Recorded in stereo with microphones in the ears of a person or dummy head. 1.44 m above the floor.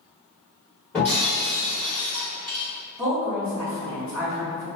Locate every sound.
0.9 s breaking glass: 10° left (ahead or behind), 1.4 m
3.0 s a woman speaking: 10° left (ahead or behind), 1.9 m